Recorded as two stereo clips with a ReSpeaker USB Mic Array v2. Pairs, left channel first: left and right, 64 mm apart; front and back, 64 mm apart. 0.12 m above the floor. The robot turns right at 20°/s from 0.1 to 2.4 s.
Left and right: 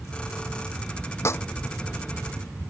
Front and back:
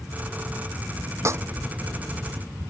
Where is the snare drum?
135° left; by 1.4 s 140° left.